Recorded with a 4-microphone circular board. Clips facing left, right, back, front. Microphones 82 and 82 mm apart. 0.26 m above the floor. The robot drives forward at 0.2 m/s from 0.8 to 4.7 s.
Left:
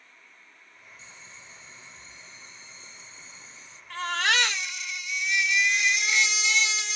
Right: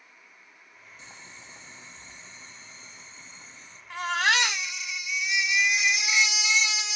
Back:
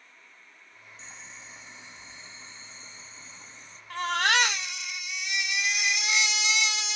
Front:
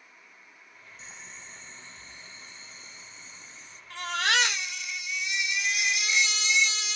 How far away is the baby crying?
About 1.0 m.